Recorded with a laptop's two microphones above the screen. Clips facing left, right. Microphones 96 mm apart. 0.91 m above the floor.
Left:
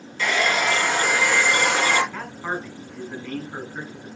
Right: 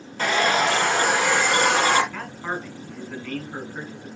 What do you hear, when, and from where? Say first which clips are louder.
0.2 s a hair dryer: right 2 dB; 45° right (ahead or behind), 3 m
2.1 s a man speaking: left 1 dB; 10° left (ahead or behind), 4.5 m